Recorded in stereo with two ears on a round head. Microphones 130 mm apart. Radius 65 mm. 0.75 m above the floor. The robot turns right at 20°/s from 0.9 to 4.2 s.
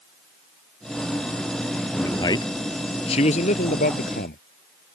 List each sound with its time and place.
2.0 s a man speaking: 20° left; by 4.4 s 65° left